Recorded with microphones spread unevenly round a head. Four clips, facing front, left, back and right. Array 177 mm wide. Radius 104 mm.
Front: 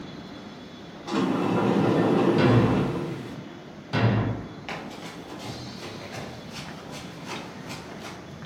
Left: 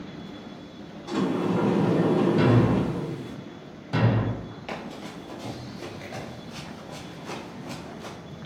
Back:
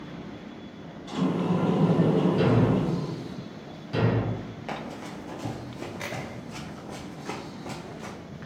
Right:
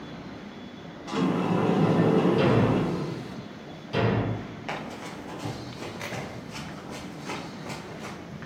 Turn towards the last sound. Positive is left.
turn(degrees=-175)